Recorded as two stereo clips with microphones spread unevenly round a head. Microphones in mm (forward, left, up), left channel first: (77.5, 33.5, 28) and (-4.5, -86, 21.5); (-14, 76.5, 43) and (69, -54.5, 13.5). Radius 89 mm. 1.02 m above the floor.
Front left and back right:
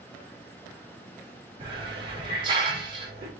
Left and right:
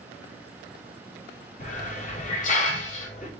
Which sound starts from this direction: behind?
A hiss, at 1.6 s.